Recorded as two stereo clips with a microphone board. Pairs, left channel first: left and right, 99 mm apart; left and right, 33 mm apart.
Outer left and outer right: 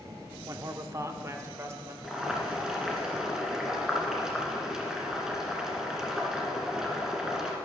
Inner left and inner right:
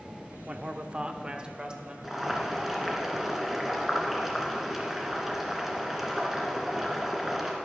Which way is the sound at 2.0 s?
5° right (ahead or behind).